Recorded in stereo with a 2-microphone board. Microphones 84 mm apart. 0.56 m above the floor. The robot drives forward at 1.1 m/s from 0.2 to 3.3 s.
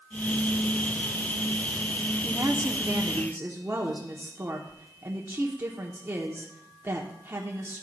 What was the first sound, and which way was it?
A woman speaking, 30° right (ahead or behind).